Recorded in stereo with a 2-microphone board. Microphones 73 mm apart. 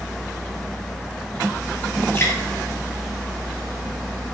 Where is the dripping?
30° left (ahead or behind), 4 m.